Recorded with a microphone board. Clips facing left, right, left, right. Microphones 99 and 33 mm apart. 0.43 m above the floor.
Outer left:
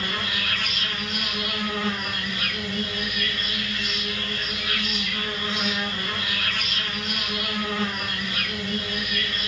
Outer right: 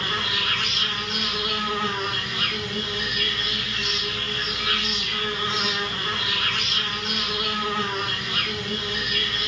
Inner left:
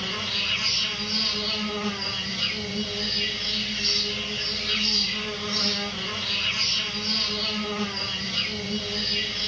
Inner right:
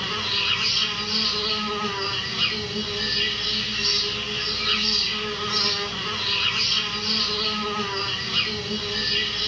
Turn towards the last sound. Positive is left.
turn(degrees=-75)  # may be behind; listen again after turning